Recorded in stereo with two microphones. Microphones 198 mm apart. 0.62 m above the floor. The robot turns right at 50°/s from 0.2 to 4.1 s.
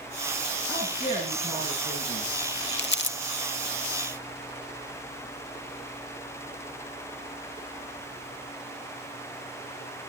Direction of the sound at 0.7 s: 15° left.